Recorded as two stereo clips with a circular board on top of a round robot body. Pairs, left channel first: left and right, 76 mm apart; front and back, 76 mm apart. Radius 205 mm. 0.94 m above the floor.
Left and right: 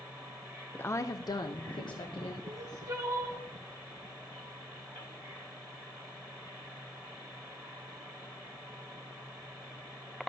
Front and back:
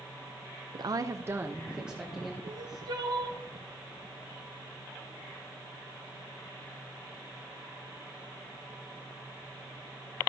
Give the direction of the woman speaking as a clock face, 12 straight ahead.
7 o'clock.